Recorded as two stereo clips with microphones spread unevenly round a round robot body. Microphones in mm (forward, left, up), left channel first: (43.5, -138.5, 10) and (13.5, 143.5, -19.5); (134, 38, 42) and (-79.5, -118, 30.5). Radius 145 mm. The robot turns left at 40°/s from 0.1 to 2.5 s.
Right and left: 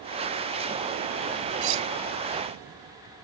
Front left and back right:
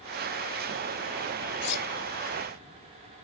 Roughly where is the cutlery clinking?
Left.